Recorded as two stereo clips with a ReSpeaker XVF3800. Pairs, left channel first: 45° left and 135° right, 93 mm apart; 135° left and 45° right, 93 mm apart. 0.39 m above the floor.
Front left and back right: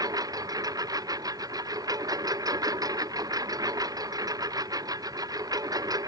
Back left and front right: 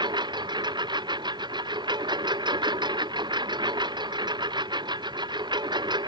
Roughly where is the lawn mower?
Right.